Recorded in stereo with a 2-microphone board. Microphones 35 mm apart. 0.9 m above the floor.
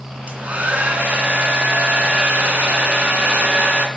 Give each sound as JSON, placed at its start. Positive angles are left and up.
{"t": 0.3, "sound": "a hair dryer", "side_deg": -45, "distance_m": 2.0}